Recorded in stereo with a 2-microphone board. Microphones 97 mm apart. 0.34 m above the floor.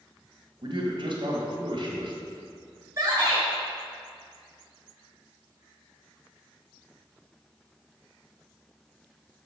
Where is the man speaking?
55° right (ahead or behind), 1.6 m.